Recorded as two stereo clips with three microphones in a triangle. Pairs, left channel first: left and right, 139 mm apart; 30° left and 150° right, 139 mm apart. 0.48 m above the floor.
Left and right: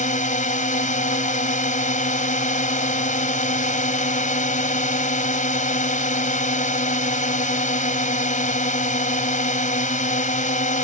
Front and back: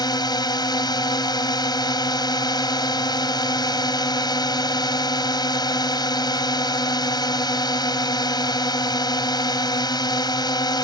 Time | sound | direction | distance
0.0 | a drone | 85° left | ?